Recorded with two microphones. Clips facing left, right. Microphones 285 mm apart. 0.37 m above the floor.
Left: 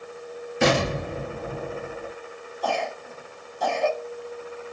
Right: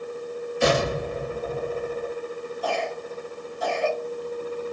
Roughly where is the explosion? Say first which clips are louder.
Even; left.